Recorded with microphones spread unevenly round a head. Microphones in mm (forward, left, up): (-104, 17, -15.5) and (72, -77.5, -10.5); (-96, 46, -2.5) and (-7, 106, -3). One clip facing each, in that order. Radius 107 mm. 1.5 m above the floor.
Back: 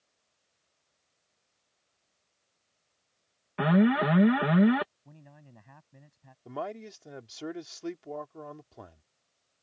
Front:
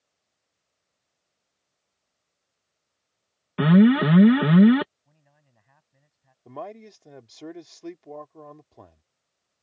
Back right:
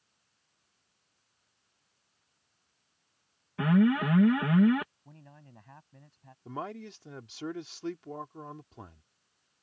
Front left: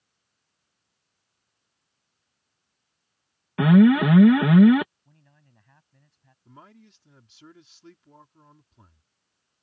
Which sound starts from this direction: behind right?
A man speaking, at 6.5 s.